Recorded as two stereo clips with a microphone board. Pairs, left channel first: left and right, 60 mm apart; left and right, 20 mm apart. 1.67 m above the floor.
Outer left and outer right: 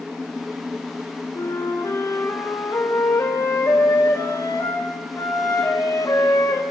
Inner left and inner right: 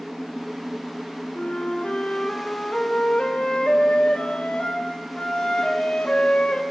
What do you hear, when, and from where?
1.4 s a flute: 75° left (ahead or behind), 5 m